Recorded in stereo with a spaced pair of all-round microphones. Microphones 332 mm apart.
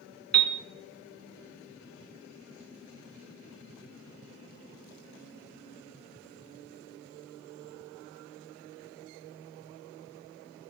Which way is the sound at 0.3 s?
50° right (ahead or behind).